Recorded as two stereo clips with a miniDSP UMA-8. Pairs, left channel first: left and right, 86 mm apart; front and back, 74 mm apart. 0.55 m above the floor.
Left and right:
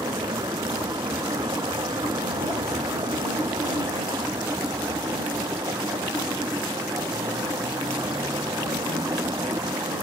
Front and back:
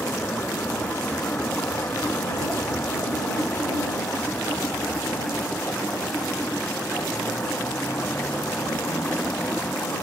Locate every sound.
0.0 s a vehicle: 65° right